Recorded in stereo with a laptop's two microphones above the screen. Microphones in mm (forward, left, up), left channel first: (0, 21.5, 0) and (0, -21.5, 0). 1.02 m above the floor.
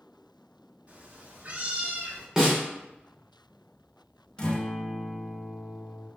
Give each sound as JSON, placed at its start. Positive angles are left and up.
{"t": 0.9, "sound": "a cat meowing", "side_deg": -35, "distance_m": 1.3}
{"t": 2.4, "sound": "a snare drum", "side_deg": -15, "distance_m": 1.0}
{"t": 4.4, "sound": "a guitar", "side_deg": 20, "distance_m": 0.9}